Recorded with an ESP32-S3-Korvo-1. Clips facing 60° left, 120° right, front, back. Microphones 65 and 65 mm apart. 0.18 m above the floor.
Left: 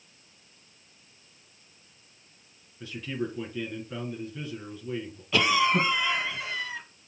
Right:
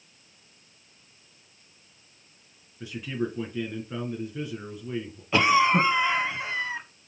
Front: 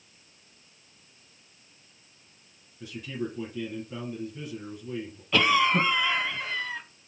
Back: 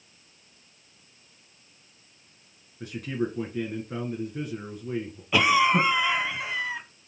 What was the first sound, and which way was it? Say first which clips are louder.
A man speaking: right 2 dB, back 4 dB; 165° left.